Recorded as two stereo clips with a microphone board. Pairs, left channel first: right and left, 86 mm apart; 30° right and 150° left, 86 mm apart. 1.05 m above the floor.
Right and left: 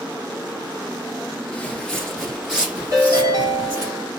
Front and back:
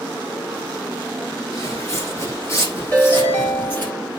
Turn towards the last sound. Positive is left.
turn(degrees=40)